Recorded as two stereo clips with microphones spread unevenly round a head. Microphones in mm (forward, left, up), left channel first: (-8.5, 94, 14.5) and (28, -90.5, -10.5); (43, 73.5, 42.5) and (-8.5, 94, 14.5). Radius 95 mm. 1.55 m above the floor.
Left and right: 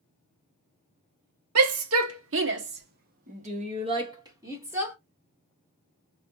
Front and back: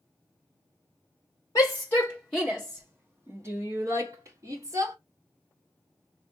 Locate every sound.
1.6 s a shout: 90° right, 1.3 m; by 5.0 s 160° right, 1.6 m